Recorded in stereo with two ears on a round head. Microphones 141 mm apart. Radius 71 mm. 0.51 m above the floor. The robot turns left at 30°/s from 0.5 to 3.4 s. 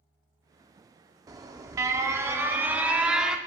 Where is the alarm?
20° right (ahead or behind), 0.5 m; by 3.4 s 5° right (ahead or behind), 0.5 m.